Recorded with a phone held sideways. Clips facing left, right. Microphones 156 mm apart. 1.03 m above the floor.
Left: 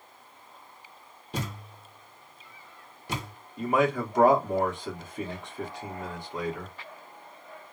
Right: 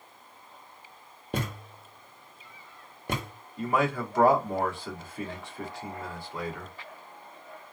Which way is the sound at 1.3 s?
55° right (ahead or behind).